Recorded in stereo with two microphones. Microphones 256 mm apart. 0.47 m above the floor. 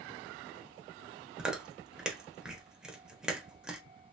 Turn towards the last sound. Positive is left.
turn(degrees=-5)  # may be behind; listen again after turning